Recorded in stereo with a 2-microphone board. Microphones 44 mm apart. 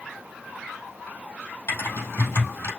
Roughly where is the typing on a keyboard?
Left.